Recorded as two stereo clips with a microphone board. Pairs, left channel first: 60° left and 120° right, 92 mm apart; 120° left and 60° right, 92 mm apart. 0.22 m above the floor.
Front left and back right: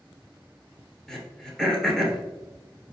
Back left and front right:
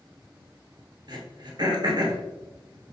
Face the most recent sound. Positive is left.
turn(degrees=-25)